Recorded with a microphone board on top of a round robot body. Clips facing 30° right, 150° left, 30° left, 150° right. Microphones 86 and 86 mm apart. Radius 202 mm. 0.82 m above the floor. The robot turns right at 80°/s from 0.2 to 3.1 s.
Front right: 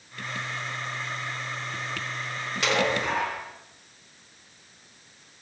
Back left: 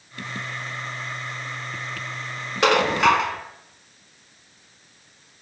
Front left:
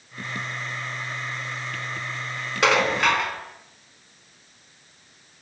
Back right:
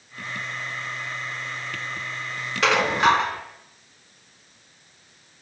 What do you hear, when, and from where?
2.6 s dishes clattering: 105° left, 3 m; by 3.4 s 145° left, 3 m